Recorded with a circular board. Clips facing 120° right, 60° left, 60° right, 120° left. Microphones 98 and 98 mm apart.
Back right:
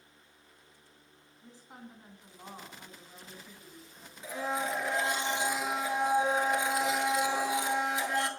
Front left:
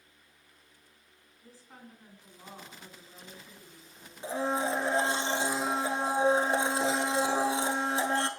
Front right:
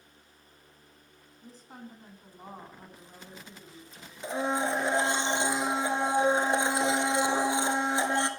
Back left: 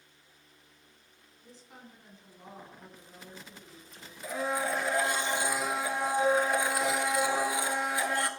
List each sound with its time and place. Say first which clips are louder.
1.4 s a woman speaking: back right 2 dB, front right 5 dB; 60° right, 1.6 m
4.2 s a blender: front left 3 dB, front right 2 dB; 5° left, 0.7 m